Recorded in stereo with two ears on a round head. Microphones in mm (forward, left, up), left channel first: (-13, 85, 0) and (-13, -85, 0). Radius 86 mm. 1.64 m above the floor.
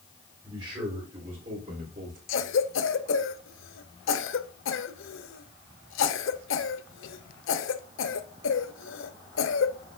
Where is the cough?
80° left, 1.0 m.